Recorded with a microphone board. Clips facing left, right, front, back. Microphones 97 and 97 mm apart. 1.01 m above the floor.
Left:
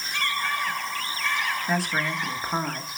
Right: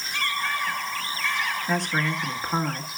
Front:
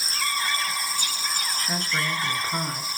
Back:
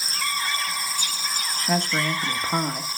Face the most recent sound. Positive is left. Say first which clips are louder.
# right 1 dB, back 6 dB
turn(degrees=175)